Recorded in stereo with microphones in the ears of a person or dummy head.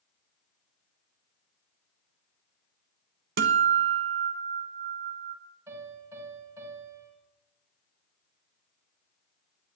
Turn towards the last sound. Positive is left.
turn(degrees=-15)  # may be behind; listen again after turning